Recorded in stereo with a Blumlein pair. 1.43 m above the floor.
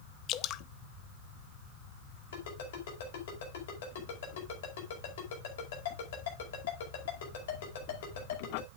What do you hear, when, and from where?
0.3 s dripping: 35° left, 0.6 m
2.3 s a ringtone: 55° left, 5 m